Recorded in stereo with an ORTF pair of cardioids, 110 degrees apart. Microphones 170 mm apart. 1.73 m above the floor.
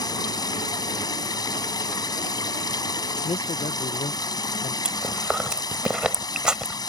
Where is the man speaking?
35° left.